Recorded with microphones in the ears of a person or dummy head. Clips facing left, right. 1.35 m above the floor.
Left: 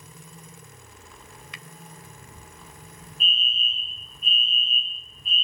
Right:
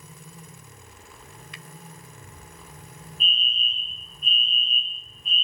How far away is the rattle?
No rattle in this recording.